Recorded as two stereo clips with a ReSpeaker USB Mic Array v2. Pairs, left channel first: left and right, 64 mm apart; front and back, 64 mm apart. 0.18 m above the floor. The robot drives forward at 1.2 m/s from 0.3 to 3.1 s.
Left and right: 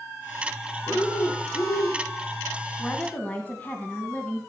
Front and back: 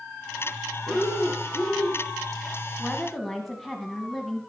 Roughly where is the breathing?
Ahead left.